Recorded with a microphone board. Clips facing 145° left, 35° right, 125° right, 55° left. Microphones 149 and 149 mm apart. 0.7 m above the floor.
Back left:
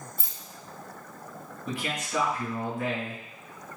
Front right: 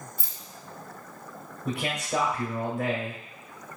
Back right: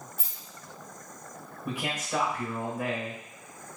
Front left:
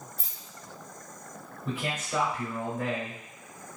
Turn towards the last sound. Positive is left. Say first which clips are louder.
# front right 4 dB, even
turn(degrees=-50)